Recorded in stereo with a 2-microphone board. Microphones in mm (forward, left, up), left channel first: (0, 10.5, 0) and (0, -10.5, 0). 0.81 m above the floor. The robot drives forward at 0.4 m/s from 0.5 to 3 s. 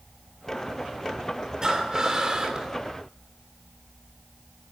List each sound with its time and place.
1.6 s breathing: 30° right (ahead or behind), 2.5 m; by 2.7 s 35° right (ahead or behind), 2 m